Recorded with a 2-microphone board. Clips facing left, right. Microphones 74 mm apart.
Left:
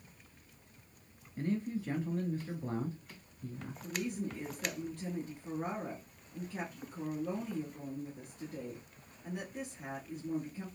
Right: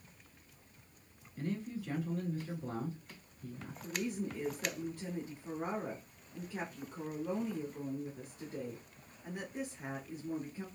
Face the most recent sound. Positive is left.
turn(degrees=-10)  # may be behind; listen again after turning